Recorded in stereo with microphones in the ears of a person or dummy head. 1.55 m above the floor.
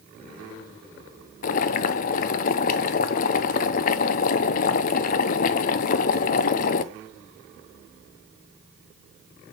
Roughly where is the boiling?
Left.